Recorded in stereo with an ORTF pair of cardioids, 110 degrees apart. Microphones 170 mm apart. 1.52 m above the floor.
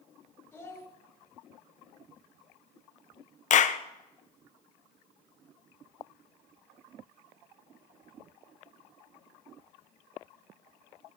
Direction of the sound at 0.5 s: 15° left.